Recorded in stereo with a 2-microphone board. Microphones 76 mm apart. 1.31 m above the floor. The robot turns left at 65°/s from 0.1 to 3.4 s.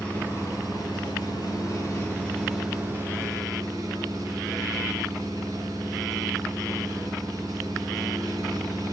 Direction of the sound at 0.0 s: 160° left.